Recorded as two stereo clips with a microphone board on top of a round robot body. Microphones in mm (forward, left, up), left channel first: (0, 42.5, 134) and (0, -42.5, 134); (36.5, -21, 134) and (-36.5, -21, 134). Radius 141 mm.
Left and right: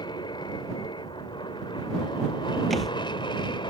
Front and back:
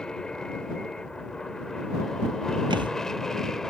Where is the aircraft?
80° left; by 3.7 s 85° left.